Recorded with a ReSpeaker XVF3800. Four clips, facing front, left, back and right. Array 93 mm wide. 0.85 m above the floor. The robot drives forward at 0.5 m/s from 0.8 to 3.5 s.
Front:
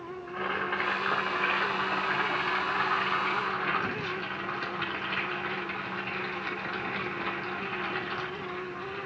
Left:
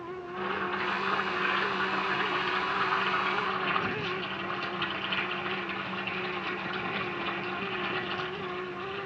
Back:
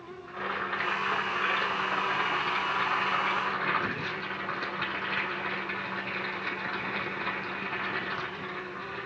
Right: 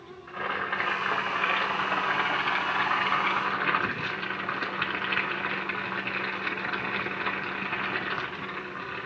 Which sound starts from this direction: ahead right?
Boiling, at 0.3 s.